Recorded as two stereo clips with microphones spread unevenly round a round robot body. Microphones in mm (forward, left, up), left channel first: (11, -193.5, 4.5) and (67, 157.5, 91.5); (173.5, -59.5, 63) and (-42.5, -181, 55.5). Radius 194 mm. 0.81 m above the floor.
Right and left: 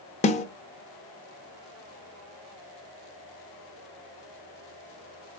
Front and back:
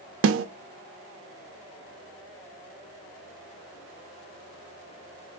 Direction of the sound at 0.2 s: 160° right.